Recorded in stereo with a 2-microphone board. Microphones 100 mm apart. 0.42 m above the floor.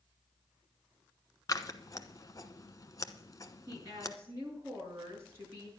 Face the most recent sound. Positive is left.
turn(degrees=-30)  # may be behind; listen again after turning